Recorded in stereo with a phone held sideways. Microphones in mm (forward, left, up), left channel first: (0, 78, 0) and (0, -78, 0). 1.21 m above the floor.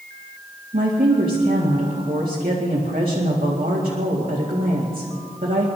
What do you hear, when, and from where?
0.7 s a woman speaking: 65° right (ahead or behind), 2 m